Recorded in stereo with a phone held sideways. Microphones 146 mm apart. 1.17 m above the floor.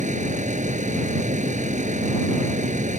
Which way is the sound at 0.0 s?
55° right (ahead or behind).